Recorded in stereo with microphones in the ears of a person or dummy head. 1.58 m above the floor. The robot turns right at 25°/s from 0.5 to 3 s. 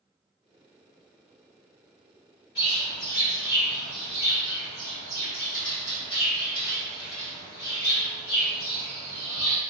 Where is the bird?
25° left (ahead or behind), 0.9 m; by 9.6 s 20° left (ahead or behind), 0.9 m.